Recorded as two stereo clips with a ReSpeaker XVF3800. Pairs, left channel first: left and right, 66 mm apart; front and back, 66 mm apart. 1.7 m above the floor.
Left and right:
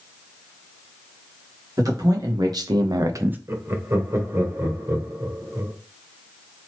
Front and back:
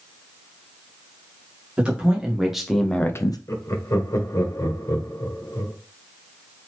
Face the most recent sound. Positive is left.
turn(degrees=-45)